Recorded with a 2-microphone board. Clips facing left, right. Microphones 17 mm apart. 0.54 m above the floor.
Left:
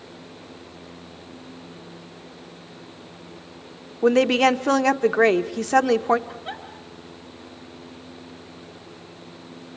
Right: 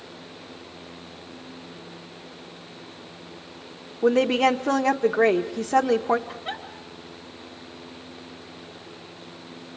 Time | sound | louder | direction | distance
4.0 | a woman speaking | left 2 dB | 50° left (ahead or behind) | 0.9 m
6.3 | a giggle | right 1 dB | 5° right (ahead or behind) | 4 m